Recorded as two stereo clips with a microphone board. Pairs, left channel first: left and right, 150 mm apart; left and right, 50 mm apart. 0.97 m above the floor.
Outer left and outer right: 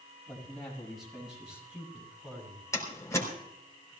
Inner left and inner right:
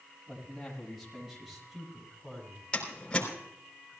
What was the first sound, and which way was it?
A man speaking, 5° left (ahead or behind).